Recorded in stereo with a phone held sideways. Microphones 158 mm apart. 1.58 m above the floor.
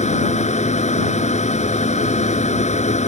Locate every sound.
0.0 s a machine running: 45° left (ahead or behind)